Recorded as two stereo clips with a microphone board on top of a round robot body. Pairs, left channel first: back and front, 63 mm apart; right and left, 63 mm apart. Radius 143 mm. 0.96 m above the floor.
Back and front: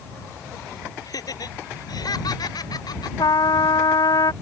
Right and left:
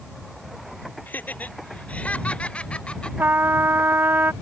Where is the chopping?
I don't hear chopping.